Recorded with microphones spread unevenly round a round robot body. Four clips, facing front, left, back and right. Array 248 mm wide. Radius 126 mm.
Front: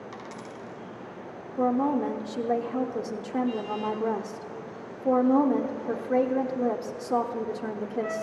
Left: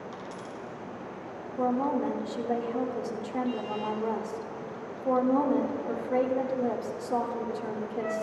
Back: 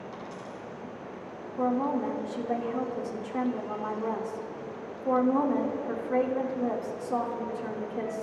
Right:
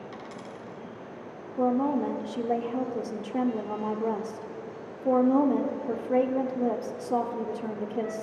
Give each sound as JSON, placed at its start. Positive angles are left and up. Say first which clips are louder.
{"t": 0.1, "sound": "a dropped coin", "louder": "left 1 dB, even", "azimuth_deg": -20, "distance_m": 2.0}
{"t": 1.6, "sound": "a woman speaking", "louder": "right 2 dB, front 3 dB", "azimuth_deg": -20, "distance_m": 1.1}